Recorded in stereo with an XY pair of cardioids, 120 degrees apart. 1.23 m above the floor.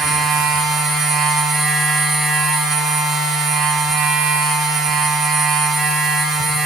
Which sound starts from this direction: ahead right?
A machine running, at 0.0 s.